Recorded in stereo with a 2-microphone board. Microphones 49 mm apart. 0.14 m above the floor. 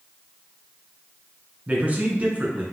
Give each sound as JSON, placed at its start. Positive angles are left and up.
{"t": 1.7, "sound": "a man speaking", "side_deg": -30, "distance_m": 1.2}